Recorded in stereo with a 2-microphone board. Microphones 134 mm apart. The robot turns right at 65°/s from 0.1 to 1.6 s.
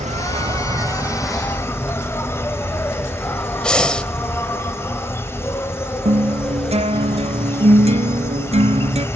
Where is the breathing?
5° left (ahead or behind), 1.3 m.